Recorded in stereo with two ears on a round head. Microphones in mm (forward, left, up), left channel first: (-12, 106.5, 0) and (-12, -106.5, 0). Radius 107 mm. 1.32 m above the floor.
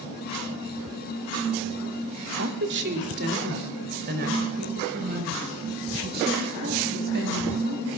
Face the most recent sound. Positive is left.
turn(degrees=-45)  # may be behind; listen again after turning